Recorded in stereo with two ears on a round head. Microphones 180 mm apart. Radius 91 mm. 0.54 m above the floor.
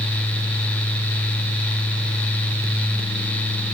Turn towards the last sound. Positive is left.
No sound to turn to.